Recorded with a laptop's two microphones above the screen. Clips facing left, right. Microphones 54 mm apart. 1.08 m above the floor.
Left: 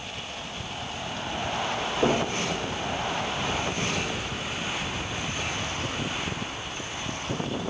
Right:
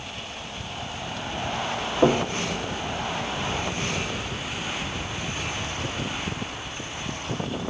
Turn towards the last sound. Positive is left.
turn(degrees=-80)